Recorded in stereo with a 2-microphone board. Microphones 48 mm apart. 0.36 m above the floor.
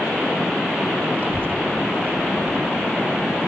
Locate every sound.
1.2 s a child speaking: 45° right (ahead or behind), 1.1 m; by 3.5 s 55° right (ahead or behind), 2.5 m